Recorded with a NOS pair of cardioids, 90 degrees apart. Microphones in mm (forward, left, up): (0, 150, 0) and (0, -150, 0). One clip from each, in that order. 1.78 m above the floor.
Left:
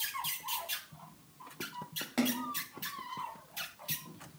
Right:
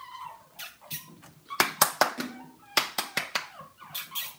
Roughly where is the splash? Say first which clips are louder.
Left 5 dB; ahead left.